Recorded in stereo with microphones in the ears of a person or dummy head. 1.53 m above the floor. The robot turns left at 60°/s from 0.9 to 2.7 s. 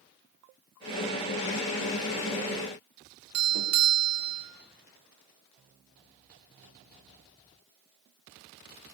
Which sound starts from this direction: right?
A doorbell, at 3.3 s.